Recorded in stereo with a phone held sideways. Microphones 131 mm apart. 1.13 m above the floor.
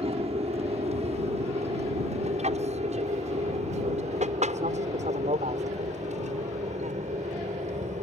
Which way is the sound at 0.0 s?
60° right (ahead or behind).